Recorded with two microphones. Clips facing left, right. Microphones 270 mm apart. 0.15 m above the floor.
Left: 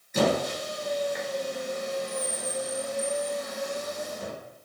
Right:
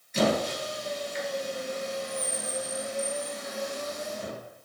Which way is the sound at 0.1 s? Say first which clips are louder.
Left 1 dB; 55° left (ahead or behind).